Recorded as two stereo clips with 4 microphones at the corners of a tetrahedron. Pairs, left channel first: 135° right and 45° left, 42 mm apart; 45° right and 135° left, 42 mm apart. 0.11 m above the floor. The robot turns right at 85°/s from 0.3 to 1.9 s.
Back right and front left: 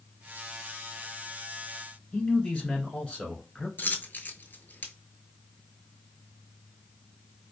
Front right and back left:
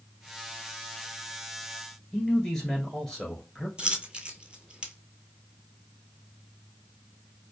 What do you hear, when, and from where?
2.1 s a man speaking: 100° right, 1.4 m
3.8 s a dropped coin: 170° right, 0.6 m